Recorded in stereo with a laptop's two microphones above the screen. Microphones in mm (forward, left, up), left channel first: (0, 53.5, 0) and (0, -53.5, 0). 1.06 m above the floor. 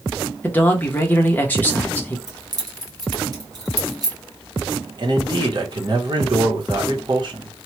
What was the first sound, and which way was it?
A man speaking, 15° left (ahead or behind).